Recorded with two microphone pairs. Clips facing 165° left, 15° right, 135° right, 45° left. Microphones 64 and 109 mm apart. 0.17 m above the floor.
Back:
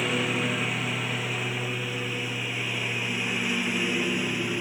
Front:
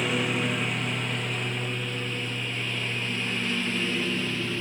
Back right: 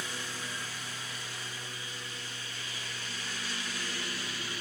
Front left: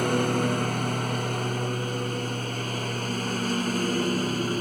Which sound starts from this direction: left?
A lawn mower, at 0.0 s.